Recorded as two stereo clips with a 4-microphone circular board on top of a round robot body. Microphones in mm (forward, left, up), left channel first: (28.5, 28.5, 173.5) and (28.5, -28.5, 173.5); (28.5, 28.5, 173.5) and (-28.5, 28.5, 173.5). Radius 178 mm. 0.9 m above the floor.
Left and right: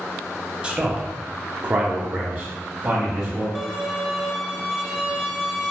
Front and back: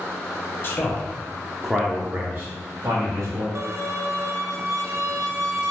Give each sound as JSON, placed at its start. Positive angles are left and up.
{"t": 0.6, "sound": "a man speaking", "azimuth_deg": -25, "distance_m": 0.8}
{"t": 3.5, "sound": "a violin", "azimuth_deg": -165, "distance_m": 0.6}